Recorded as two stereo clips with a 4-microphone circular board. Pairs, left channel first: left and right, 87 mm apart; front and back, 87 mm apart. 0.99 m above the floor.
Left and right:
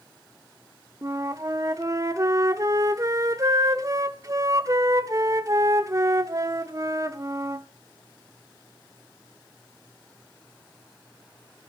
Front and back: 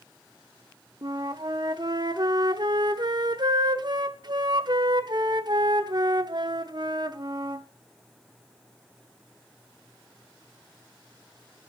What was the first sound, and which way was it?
A flute, 140° right.